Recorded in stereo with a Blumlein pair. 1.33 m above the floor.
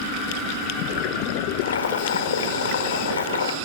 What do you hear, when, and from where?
1.6 s boiling: 65° left, 1.4 m